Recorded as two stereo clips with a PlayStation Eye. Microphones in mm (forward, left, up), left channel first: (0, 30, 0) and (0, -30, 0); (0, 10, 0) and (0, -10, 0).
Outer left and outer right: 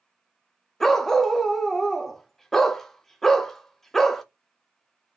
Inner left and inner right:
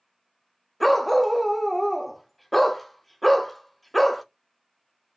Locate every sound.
0.8 s a dog barking: 5° left (ahead or behind), 0.7 m